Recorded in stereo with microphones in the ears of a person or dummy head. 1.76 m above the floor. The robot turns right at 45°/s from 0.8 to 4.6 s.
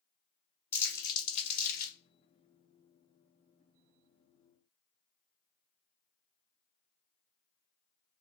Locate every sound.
0.7 s crumpling: 25° left (ahead or behind), 1.2 m; by 2.0 s 65° left (ahead or behind), 1.2 m